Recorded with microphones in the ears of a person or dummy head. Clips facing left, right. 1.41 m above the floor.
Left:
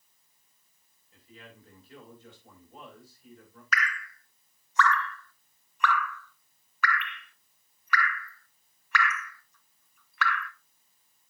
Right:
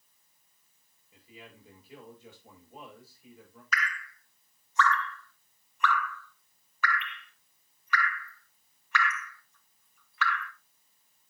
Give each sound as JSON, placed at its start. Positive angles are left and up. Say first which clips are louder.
{"t": 1.1, "sound": "a man speaking", "louder": "even", "side_deg": -5, "distance_m": 6.5}
{"t": 3.7, "sound": "dripping", "louder": "left 2 dB", "side_deg": 50, "distance_m": 0.6}